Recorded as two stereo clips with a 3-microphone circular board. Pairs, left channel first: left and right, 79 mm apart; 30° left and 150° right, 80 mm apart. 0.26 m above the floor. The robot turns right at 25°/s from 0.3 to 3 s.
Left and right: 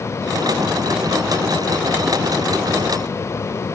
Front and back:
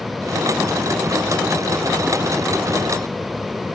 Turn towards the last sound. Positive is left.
No sound to turn to.